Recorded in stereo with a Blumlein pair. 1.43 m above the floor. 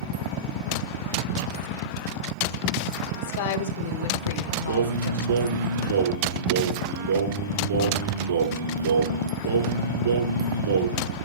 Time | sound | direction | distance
3.2 | a woman speaking | 55° left | 3 m
4.7 | singing | 65° right | 4.5 m